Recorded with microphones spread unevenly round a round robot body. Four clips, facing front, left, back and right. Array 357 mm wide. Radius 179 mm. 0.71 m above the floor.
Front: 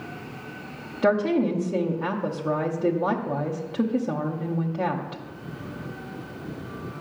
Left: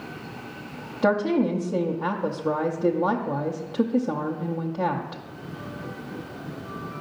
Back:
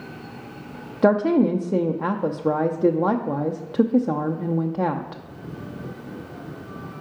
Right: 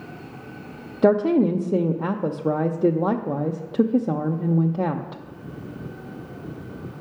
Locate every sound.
1.0 s a woman speaking: 125° right, 0.6 m